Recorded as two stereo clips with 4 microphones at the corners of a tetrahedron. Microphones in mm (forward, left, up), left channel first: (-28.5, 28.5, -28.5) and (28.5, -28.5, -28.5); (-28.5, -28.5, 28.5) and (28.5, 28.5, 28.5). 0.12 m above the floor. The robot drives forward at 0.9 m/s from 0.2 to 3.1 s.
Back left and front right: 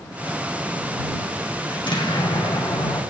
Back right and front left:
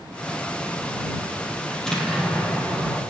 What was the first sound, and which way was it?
An explosion, 140° left.